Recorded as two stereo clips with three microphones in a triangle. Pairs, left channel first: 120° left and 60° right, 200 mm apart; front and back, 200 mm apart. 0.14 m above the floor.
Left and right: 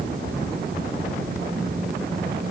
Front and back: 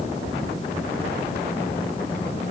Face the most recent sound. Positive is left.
No sound to turn to.